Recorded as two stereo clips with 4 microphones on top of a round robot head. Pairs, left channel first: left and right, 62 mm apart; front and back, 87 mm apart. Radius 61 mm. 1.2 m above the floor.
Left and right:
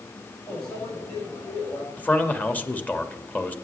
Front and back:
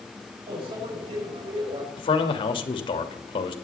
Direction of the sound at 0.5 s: 170° left.